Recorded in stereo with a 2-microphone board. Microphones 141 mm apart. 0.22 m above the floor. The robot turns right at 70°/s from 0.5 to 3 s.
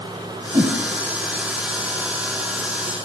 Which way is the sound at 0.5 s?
25° right (ahead or behind).